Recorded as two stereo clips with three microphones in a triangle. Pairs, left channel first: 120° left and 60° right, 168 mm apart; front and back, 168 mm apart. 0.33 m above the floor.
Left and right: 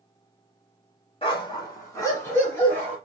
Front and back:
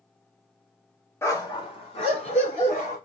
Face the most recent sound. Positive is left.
turn(degrees=40)